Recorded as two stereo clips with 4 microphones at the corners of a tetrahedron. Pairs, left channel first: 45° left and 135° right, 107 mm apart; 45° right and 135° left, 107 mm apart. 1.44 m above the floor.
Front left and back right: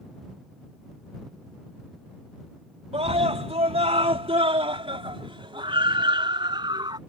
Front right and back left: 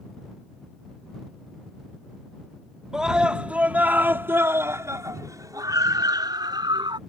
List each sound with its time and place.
2.9 s a scream: 140° right; by 7.0 s straight behind